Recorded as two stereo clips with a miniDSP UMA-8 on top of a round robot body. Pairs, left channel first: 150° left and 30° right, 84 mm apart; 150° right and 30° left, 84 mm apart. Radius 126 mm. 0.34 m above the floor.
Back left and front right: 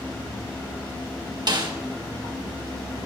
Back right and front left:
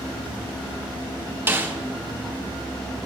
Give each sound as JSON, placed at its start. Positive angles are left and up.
{"t": 1.5, "sound": "a snare drum", "azimuth_deg": -25, "distance_m": 1.9}